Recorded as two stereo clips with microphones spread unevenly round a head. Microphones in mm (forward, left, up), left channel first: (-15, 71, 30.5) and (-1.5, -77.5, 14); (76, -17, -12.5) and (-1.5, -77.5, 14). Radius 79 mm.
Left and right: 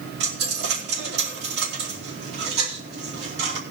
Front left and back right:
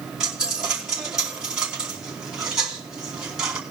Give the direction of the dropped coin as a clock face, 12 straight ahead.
2 o'clock.